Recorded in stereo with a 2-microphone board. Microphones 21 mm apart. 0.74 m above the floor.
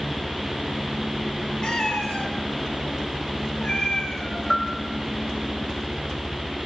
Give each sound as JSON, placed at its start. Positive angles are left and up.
{"t": 1.6, "sound": "a cat meowing", "side_deg": 50, "distance_m": 5.5}
{"t": 4.5, "sound": "a bell", "side_deg": 20, "distance_m": 4.0}